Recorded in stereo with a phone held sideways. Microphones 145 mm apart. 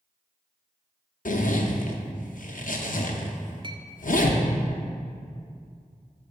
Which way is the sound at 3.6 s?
35° right (ahead or behind).